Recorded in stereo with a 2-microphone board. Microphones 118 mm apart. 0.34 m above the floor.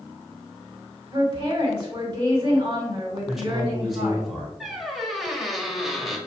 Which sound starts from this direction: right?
A woman speaking, at 1.1 s.